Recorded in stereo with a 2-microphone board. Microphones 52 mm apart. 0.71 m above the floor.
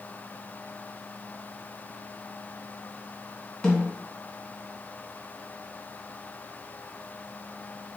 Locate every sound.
3.6 s a snare drum: 15° left (ahead or behind), 2 m